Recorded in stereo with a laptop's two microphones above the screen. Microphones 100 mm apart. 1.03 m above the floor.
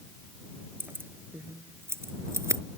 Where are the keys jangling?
20° right (ahead or behind); by 2.6 s 30° right (ahead or behind).